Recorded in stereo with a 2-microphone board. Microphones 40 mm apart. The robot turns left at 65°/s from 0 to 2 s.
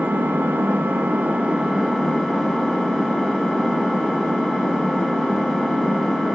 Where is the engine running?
50° right, 0.7 m; by 6.4 s straight behind, 0.7 m.